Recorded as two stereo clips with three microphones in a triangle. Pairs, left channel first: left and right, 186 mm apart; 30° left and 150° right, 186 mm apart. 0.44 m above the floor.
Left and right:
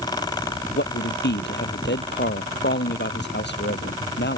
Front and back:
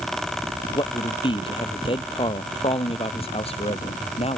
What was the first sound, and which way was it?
A man speaking, 90° left.